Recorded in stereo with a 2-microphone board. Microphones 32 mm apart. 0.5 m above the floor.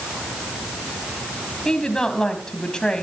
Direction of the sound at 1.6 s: 25° left (ahead or behind).